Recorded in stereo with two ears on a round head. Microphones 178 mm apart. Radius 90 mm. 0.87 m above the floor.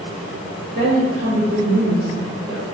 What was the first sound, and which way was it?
A woman speaking, 40° right (ahead or behind).